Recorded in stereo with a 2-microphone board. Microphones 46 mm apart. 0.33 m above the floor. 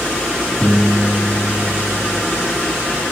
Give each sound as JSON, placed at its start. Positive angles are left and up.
{"t": 0.6, "sound": "a piano", "side_deg": 10, "distance_m": 2.0}